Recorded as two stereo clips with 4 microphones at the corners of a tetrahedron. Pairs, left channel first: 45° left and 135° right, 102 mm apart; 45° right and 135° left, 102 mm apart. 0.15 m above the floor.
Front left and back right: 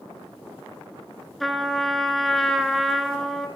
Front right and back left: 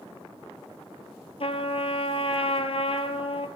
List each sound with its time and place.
1.4 s a trumpet: 45° right, 0.8 m